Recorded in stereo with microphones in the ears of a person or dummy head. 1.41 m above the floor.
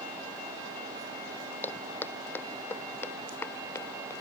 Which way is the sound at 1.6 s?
5° left (ahead or behind).